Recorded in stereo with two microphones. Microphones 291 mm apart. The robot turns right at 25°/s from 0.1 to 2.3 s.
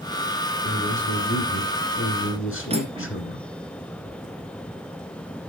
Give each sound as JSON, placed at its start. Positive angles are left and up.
{"t": 0.6, "sound": "a man speaking", "azimuth_deg": 60, "distance_m": 1.7}
{"t": 2.7, "sound": "cutlery clinking", "side_deg": -20, "distance_m": 1.3}